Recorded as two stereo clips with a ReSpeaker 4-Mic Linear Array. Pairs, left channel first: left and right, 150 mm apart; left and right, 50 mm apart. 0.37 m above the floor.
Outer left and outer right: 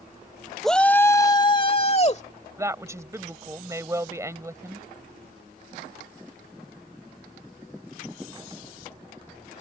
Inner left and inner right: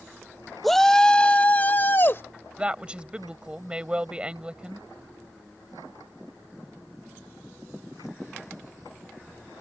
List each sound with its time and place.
0.6 s a shout: centre (ahead or behind); by 2.2 s 45° left (ahead or behind)
2.6 s a woman speaking: 20° right (ahead or behind)